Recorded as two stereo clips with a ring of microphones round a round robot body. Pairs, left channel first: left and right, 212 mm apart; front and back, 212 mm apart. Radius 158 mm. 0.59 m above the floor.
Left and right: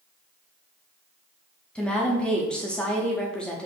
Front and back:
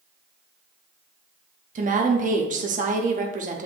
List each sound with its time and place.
1.8 s a woman speaking: 175° left, 0.7 m